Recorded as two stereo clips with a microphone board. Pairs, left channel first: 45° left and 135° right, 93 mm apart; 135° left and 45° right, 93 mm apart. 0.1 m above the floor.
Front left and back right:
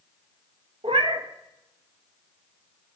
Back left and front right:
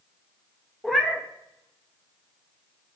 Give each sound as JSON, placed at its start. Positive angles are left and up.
{"t": 0.8, "sound": "a cat meowing", "azimuth_deg": -135, "distance_m": 0.7}